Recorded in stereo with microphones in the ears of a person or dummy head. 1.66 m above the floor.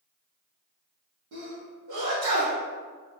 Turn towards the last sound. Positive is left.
turn(degrees=-65)  # may be behind; listen again after turning